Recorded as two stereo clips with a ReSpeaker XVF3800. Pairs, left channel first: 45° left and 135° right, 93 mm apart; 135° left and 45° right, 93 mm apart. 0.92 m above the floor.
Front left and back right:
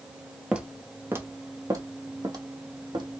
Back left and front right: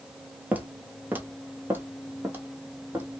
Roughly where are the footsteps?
Right.